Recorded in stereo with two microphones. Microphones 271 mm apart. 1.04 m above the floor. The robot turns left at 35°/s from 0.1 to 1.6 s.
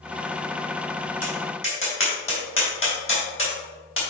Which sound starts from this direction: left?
Tapping, at 1.2 s.